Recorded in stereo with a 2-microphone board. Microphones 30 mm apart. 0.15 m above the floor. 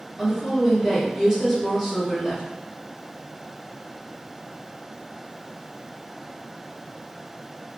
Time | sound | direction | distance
0.2 | a woman speaking | 10° right (ahead or behind) | 1.8 m